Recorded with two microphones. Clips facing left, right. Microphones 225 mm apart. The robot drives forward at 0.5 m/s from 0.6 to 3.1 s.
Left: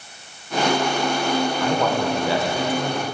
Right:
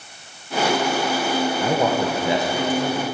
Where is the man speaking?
25° right (ahead or behind), 0.9 m; by 3.0 s 15° right (ahead or behind), 1.5 m.